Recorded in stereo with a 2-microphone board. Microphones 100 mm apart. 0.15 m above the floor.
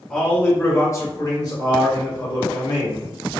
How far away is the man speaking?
About 1.2 m.